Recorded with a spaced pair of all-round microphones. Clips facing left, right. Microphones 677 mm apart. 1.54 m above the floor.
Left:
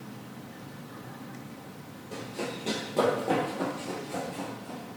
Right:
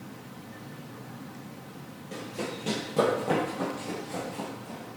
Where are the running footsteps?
45° right (ahead or behind), 2.5 m; by 5.0 s 30° right (ahead or behind), 3 m.